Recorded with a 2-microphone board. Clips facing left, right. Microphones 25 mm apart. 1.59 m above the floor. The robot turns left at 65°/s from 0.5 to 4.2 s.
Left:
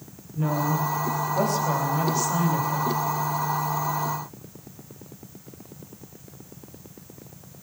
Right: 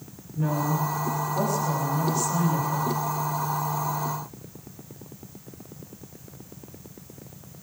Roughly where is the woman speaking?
Behind left.